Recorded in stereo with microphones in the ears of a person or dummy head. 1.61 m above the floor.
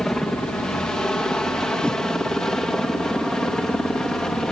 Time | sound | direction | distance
0.0 | a helicopter | 5° left (ahead or behind) | ?
1.8 | a whoosh | 5° left (ahead or behind) | ?